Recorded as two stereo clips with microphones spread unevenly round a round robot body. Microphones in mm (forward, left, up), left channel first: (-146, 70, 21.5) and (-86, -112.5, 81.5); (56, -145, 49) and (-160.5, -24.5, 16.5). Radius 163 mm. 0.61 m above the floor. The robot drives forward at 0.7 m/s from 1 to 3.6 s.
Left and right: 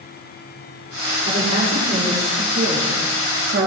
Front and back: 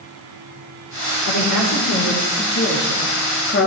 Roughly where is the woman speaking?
Ahead.